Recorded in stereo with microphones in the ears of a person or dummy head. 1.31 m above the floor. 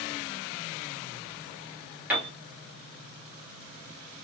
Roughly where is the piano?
Centre.